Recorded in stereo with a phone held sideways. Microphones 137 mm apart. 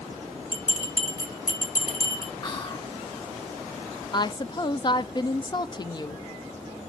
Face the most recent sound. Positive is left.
turn(degrees=30)  # may be behind; listen again after turning